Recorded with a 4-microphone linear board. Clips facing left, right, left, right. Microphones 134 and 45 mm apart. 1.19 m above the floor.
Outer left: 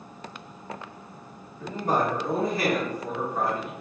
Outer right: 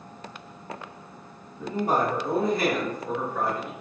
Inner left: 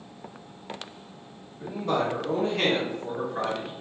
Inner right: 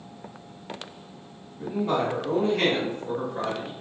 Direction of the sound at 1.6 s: 15° right (ahead or behind).